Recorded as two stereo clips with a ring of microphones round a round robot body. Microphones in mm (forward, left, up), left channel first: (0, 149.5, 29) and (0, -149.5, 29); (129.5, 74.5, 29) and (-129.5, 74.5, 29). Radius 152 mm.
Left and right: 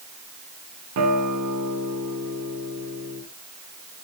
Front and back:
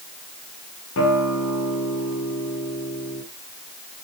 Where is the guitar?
50° right, 2.5 m.